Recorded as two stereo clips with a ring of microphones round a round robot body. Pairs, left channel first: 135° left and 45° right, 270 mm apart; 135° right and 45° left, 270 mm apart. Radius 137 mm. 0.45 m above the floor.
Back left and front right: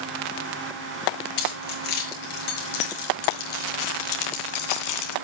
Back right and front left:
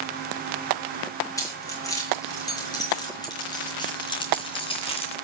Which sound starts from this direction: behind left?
Keys jangling, at 1.4 s.